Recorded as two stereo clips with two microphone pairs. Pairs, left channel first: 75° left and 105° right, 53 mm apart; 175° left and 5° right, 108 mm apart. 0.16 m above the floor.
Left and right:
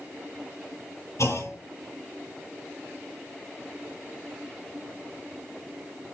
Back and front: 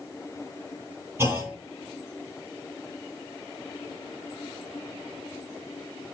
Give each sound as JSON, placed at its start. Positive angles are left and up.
{"t": 1.2, "sound": "a clunk", "azimuth_deg": 60, "distance_m": 5.0}